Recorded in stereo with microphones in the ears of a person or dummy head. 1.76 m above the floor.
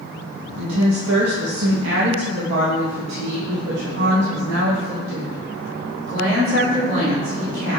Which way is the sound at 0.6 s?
75° right (ahead or behind).